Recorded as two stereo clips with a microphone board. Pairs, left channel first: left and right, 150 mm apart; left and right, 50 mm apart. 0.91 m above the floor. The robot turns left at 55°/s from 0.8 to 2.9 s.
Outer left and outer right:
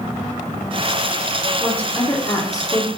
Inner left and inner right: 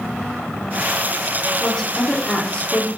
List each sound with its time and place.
1.6 s a woman speaking: 5° left (ahead or behind), 0.5 m; by 2.9 s 25° left (ahead or behind), 0.5 m